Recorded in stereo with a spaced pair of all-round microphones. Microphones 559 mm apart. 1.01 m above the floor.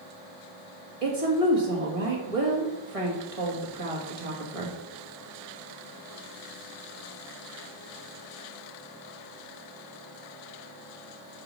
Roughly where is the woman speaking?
Right.